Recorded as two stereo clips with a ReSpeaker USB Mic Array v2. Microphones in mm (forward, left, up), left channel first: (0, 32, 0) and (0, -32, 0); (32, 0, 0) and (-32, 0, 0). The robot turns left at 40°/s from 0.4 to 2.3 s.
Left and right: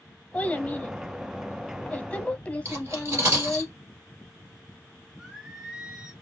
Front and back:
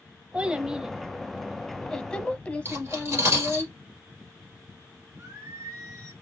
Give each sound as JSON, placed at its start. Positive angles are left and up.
{"t": 0.3, "sound": "a child speaking", "azimuth_deg": 125, "distance_m": 0.8}
{"t": 2.6, "sound": "cutlery clinking", "azimuth_deg": -135, "distance_m": 2.0}
{"t": 5.2, "sound": "singing", "azimuth_deg": -165, "distance_m": 0.8}